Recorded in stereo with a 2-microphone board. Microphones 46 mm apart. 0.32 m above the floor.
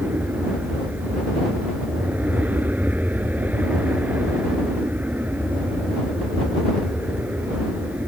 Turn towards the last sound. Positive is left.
turn(degrees=-35)  # may be behind; listen again after turning